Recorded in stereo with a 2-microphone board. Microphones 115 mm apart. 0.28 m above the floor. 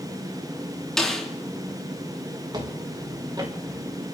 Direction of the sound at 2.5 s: 40° right (ahead or behind).